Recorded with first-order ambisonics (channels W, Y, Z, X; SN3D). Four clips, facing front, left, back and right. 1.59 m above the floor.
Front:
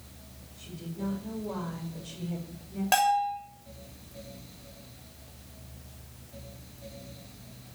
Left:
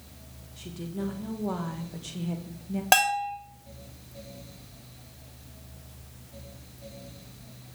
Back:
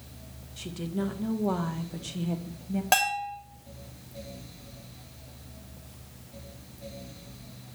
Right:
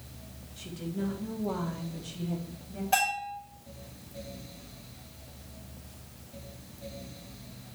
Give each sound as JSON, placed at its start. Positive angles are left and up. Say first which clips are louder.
{"t": 0.6, "sound": "a woman speaking", "louder": "even, back 6 dB", "azimuth_deg": 180, "distance_m": 1.7}
{"t": 2.9, "sound": "a bell", "louder": "left 5 dB, front 2 dB", "azimuth_deg": 100, "distance_m": 2.5}